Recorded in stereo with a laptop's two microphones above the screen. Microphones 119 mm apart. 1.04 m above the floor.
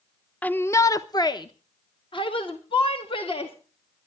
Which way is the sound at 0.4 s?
10° left (ahead or behind).